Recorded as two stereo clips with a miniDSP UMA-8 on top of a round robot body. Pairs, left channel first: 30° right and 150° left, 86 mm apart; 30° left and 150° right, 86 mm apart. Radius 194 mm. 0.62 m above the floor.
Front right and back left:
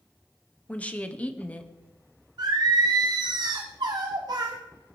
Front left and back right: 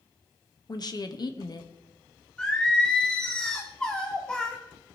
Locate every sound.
0.7 s a woman speaking: 40° left, 1.5 m
2.4 s singing: 110° left, 1.1 m